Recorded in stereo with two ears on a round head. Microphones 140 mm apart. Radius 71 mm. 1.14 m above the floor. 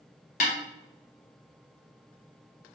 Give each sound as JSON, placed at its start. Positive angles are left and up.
{"t": 0.4, "sound": "a snare drum", "side_deg": 60, "distance_m": 1.2}